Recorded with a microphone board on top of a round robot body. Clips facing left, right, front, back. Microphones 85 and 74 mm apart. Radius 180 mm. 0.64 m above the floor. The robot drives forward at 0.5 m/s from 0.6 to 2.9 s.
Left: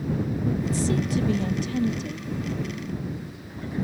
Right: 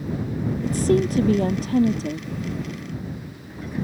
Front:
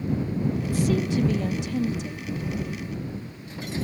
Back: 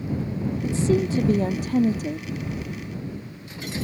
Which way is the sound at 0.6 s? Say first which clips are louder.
Right 5 dB, back 6 dB; 115° right.